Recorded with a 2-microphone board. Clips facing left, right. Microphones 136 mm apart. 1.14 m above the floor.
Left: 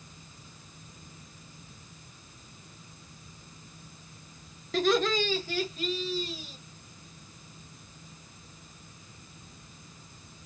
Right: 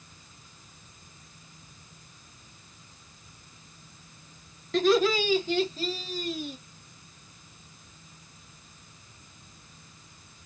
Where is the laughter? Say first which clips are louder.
Right 3 dB; centre (ahead or behind), 1.2 m; by 6.6 s 60° right (ahead or behind), 1.0 m.